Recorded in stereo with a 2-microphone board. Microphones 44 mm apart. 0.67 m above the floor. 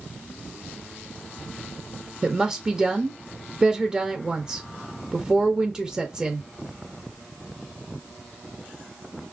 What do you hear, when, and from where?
2.2 s a woman speaking: 15° right (ahead or behind), 0.6 m